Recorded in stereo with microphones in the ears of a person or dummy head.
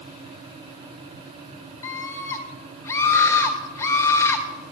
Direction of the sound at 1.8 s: 20° left (ahead or behind).